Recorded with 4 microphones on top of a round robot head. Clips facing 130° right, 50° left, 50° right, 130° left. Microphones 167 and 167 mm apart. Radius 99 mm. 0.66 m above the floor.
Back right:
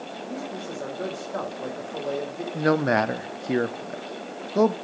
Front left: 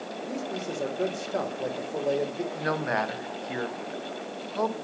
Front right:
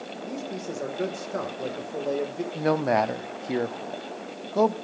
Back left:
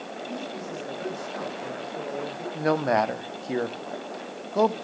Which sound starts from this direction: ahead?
A man speaking, at 0.2 s.